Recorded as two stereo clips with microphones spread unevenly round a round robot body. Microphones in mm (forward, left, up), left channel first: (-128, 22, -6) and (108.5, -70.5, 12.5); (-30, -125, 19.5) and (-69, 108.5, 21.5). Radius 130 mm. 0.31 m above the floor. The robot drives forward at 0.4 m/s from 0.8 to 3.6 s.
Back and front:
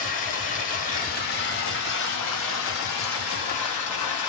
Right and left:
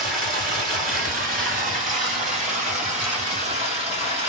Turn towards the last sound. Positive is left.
turn(degrees=160)